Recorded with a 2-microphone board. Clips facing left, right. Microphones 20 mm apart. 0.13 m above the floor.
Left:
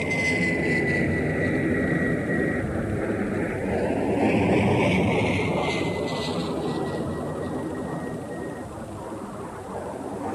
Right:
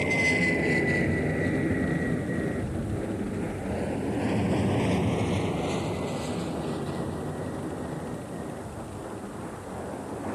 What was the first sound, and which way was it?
An aircraft, 5° right (ahead or behind).